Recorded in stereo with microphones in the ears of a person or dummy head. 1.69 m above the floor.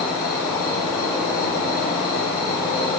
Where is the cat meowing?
I don't hear a cat meowing.